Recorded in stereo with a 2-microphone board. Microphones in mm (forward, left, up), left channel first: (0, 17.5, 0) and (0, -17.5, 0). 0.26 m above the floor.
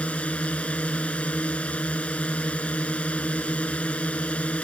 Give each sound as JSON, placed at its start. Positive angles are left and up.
{"t": 0.0, "sound": "a drone", "side_deg": 35}